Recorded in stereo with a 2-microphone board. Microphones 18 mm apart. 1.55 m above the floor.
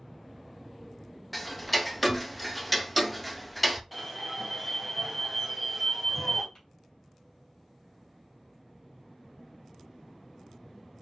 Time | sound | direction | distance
1.3 | ticking | 5° left (ahead or behind) | 0.5 m
3.9 | an alarm | centre (ahead or behind) | 1.8 m
6.5 | tapping | 40° left (ahead or behind) | 3.5 m